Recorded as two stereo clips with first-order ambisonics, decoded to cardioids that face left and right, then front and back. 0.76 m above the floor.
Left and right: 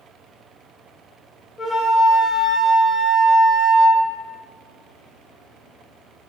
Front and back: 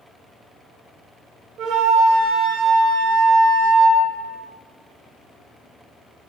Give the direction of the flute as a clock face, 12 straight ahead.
7 o'clock.